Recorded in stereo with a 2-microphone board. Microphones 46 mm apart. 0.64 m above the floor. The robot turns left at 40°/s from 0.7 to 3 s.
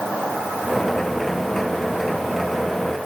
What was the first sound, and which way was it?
Only background noise.